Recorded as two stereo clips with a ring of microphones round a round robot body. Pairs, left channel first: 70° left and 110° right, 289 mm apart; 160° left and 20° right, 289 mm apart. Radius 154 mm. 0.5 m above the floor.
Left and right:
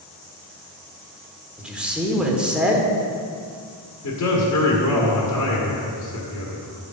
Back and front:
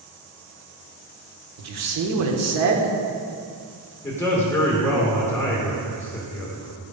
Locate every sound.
1.6 s a man speaking: 25° right, 1.3 m
4.0 s a man speaking: 75° left, 1.6 m